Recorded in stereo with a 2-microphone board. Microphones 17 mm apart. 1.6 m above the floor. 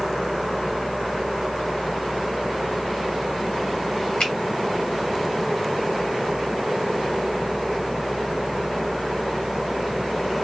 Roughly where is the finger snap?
Left.